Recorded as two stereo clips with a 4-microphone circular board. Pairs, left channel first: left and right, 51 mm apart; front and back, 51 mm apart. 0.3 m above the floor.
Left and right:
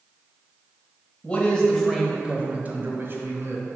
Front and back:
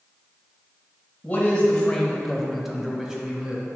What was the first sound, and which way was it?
A man speaking, 45° left.